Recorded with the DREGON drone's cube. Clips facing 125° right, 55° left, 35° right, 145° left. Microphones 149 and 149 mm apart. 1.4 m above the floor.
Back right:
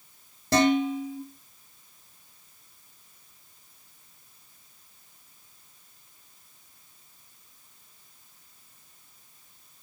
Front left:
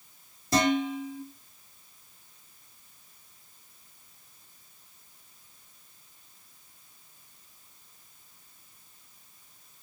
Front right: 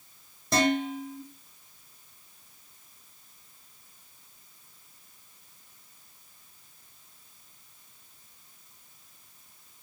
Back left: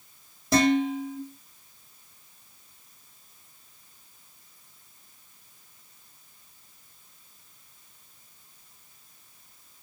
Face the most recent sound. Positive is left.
turn(degrees=-130)